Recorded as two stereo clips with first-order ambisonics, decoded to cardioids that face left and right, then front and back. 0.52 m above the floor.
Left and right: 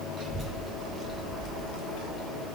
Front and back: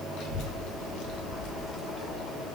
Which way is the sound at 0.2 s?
15° right.